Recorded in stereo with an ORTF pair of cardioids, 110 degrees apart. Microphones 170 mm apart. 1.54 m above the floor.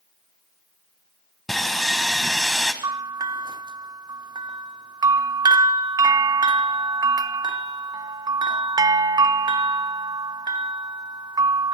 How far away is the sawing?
About 1.7 m.